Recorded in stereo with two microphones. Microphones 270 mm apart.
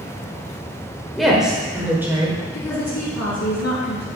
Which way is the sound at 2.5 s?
70° left (ahead or behind).